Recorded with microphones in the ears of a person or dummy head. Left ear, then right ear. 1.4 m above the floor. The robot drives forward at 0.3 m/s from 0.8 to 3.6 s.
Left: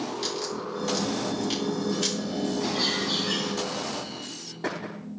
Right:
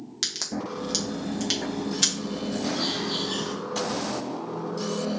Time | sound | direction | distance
0.2 | a crack | 55° right (ahead or behind) | 0.9 m
2.6 | a bird | 60° left (ahead or behind) | 2.5 m